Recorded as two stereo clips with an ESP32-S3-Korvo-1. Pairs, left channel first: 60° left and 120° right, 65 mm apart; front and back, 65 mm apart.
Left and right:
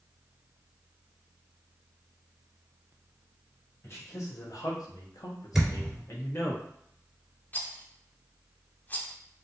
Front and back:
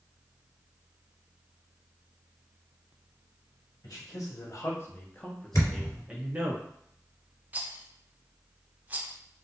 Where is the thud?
35° right, 2.5 m.